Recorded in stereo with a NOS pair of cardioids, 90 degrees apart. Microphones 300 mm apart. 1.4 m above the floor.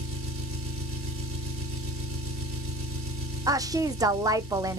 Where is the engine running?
50° right, 1.6 m.